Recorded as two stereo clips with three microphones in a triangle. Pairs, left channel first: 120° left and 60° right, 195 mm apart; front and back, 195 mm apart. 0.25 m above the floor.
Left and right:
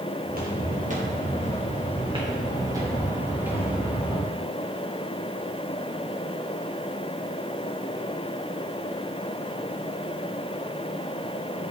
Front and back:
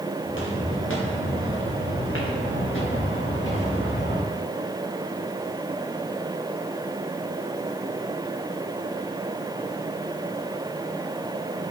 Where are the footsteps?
15° right, 3 m; by 4.3 s 30° left, 3.5 m.